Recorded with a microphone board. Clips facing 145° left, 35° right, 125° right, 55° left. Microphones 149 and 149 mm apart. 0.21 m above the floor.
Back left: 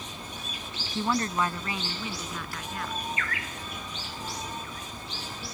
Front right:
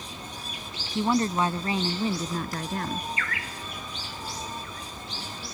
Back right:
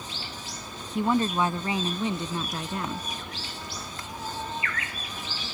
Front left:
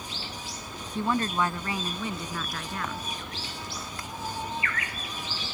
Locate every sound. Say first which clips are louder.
0.9 s a woman speaking: front right 4 dB, back right 3 dB; 80° right; by 3.1 s 65° right